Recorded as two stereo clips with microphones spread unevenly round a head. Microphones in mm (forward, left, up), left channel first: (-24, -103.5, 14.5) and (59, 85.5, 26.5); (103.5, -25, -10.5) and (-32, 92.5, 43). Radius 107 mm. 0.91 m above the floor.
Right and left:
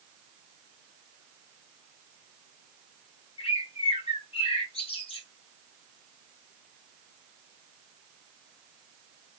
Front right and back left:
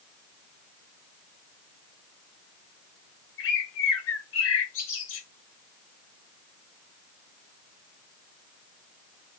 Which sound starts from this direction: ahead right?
A bird, at 3.4 s.